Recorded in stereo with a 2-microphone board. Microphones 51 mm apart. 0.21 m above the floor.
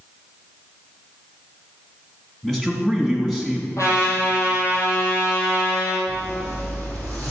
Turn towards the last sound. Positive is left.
turn(degrees=35)  # may be behind; listen again after turning